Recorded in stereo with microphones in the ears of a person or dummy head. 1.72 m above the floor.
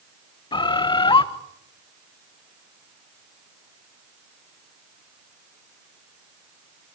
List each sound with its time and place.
0.5 s a bird: 25° left (ahead or behind), 1.4 m